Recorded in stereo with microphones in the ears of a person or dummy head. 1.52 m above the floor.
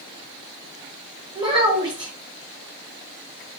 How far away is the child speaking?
About 1.0 m.